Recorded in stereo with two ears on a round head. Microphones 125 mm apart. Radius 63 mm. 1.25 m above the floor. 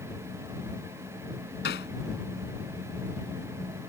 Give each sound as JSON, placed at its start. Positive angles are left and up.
{"t": 1.6, "sound": "hammering", "side_deg": 85}